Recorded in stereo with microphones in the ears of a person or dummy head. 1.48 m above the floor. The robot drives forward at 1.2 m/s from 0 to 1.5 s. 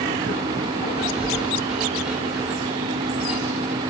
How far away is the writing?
About 1.2 m.